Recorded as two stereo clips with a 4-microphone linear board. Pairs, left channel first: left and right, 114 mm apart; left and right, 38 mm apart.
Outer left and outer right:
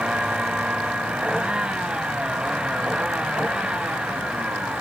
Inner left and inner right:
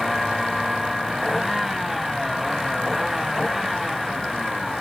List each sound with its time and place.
0.0 s a vehicle: 10° right (ahead or behind)